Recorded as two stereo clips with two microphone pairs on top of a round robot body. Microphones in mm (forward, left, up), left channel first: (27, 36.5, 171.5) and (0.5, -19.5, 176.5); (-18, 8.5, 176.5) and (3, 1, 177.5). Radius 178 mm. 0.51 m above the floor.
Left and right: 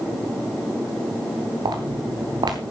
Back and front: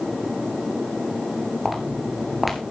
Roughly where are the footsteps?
Right.